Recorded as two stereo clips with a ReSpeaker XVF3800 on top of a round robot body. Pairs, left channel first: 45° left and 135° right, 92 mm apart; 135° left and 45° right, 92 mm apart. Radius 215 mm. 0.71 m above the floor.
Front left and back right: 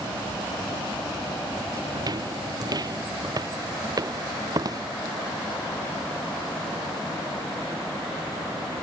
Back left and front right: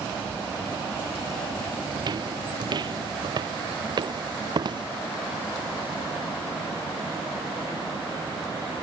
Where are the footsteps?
90° right; by 4.8 s 85° right.